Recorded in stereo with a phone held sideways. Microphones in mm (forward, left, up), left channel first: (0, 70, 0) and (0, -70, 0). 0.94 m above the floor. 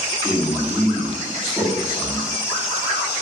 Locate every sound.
0.2 s a man speaking: 5° right (ahead or behind), 1.8 m